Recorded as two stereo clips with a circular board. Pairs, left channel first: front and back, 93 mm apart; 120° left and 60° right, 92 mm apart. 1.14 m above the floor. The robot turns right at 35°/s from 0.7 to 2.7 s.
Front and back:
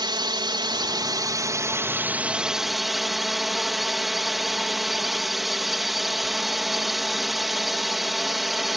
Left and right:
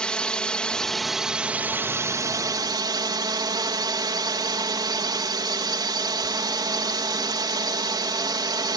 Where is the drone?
160° right; by 8.8 s 90° right.